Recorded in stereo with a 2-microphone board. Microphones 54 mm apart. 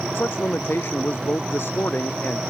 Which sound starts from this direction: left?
A man speaking, at 0.1 s.